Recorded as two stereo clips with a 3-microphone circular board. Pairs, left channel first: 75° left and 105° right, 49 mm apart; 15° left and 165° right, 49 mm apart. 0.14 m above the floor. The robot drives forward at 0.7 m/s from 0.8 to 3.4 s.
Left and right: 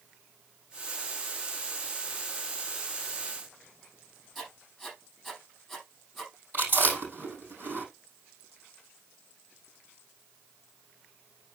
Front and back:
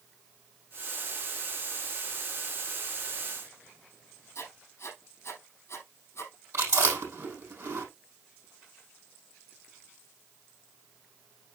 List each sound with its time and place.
4.3 s writing: 20° right, 4 m
6.5 s chewing: 150° right, 5 m